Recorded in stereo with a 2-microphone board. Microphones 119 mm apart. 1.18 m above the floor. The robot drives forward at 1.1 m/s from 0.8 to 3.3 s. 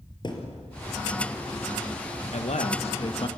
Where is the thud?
40° left (ahead or behind), 3 m.